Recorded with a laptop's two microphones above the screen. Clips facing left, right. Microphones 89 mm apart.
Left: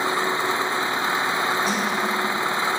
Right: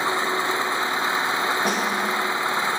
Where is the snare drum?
60° right (ahead or behind), 0.9 m.